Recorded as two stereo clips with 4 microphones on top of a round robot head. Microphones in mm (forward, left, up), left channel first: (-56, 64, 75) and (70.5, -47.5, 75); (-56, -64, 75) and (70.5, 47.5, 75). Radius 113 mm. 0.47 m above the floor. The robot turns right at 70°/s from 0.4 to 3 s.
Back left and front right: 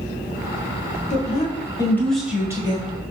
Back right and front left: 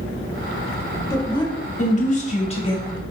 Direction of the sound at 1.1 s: 155° left.